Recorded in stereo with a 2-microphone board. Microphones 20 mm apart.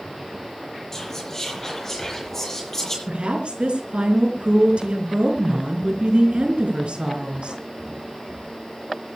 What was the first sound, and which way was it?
Whispering, 20° left (ahead or behind).